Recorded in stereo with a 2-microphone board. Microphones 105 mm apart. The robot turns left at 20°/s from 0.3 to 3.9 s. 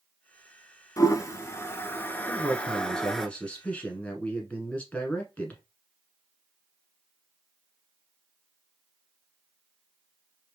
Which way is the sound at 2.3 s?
5° left (ahead or behind).